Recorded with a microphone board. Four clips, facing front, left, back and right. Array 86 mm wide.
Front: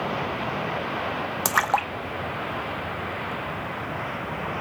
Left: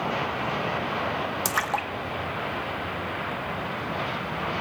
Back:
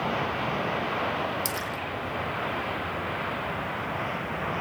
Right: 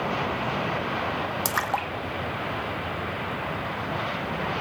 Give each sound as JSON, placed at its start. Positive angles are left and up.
{"t": 1.4, "sound": "a splash", "azimuth_deg": -5, "distance_m": 0.8}